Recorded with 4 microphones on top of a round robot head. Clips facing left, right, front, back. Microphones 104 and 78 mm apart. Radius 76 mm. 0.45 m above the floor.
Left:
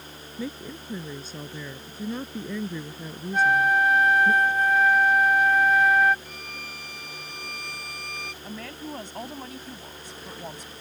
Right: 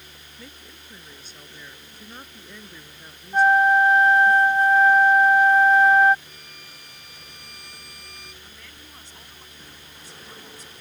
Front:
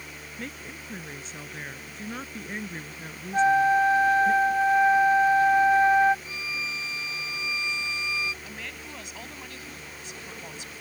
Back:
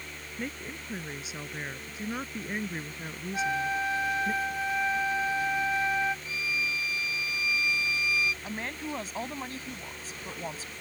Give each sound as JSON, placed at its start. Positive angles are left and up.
{"t": 0.4, "sound": "a woman speaking", "azimuth_deg": 100}
{"t": 3.3, "sound": "a flute", "azimuth_deg": -40}
{"t": 6.2, "sound": "a violin", "azimuth_deg": 70}
{"t": 8.4, "sound": "a woman speaking", "azimuth_deg": 130}